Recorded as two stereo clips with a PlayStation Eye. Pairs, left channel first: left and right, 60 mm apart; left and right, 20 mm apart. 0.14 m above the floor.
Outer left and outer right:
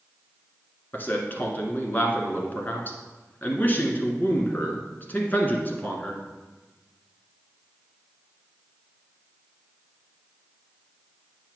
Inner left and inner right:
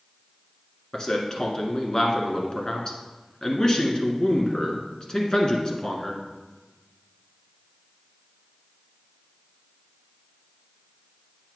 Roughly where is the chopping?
No chopping in this recording.